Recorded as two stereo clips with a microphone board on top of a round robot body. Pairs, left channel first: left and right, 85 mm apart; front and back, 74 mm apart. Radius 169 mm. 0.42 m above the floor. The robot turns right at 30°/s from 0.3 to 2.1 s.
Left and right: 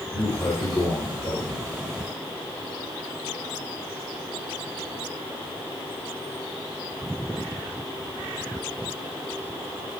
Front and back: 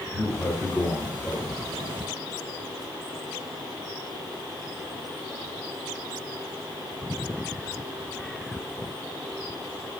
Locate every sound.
0.1 s a man speaking: 45° left, 2.5 m; by 1.7 s 90° left, 2.5 m